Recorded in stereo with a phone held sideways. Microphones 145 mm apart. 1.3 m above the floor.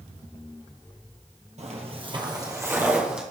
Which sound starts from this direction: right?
Footsteps, at 1.6 s.